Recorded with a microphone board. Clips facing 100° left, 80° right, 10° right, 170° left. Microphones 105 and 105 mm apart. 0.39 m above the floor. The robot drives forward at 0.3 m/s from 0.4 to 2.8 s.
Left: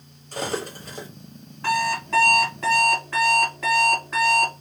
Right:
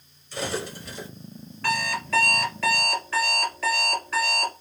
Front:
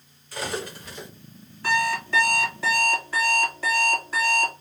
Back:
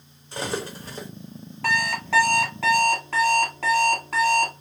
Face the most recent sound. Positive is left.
turn(degrees=165)